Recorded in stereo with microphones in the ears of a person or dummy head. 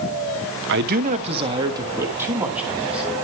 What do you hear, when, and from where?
0.7 s a man speaking: 60° right (ahead or behind), 1.0 m; by 3.1 s 5° right (ahead or behind), 3 m